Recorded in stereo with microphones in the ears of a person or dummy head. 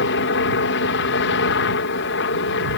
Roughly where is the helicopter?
Left.